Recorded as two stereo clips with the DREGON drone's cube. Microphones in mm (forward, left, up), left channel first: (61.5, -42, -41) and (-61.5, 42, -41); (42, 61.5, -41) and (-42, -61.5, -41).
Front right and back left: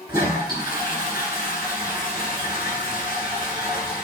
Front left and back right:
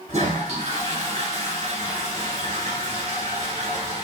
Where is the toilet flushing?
155° right, 2.5 m.